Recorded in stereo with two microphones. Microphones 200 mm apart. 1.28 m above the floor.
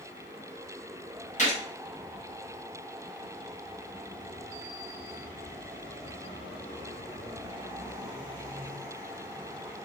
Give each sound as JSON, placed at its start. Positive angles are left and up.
{"t": 1.4, "sound": "a gunshot", "side_deg": 35, "distance_m": 1.0}